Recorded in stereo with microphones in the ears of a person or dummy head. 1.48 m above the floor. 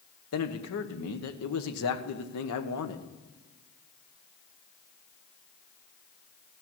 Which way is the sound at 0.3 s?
80° left.